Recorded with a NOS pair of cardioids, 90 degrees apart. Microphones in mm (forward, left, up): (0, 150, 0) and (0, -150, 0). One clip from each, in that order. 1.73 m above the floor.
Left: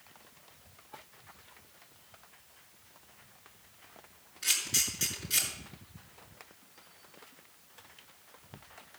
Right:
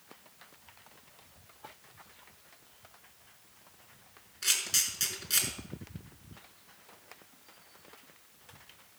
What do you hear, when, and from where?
4.4 s a camera shutter: 40° right, 5.5 m